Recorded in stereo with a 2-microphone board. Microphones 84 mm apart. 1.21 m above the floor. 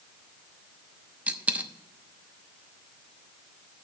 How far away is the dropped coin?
About 0.8 m.